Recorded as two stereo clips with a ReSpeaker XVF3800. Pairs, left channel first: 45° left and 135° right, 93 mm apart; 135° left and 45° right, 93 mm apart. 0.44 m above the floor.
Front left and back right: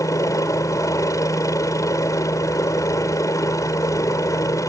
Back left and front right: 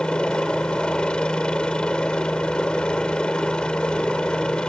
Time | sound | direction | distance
0.0 | a helicopter | 60° left | ?